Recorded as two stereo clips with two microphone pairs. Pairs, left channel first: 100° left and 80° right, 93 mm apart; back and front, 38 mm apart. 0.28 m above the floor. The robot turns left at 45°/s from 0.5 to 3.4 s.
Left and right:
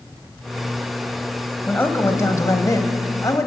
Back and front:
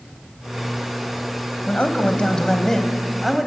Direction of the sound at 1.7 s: 155° left.